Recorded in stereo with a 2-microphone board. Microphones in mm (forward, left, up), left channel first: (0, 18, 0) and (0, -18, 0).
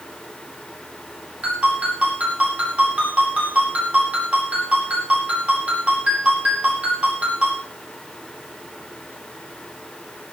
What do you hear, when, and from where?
1.4 s a ringtone: 35° right (ahead or behind), 9 m